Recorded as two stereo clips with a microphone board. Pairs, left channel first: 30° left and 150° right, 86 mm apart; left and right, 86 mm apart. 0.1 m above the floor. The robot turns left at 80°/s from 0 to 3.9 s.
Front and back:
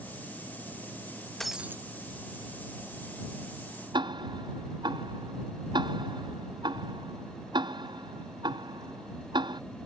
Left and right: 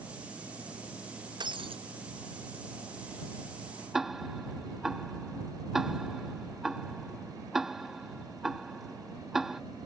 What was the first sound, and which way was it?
Breaking glass, 55° right.